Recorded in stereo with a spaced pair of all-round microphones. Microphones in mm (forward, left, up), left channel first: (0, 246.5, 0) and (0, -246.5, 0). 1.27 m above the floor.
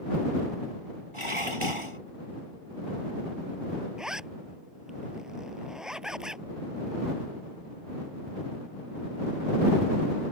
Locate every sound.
1.1 s dishes clattering: 80° right
4.0 s a zipper: centre (ahead or behind)